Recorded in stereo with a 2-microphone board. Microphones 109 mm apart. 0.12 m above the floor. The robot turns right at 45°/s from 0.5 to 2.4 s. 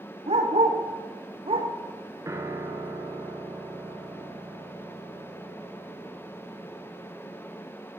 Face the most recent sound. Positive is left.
turn(degrees=-25)  # may be behind; listen again after turning